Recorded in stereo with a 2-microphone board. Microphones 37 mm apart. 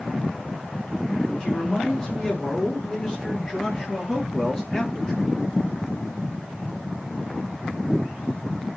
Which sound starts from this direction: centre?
A man speaking, at 1.4 s.